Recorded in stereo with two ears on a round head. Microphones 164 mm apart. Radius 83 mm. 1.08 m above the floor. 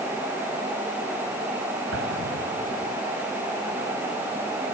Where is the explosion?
75° right (ahead or behind).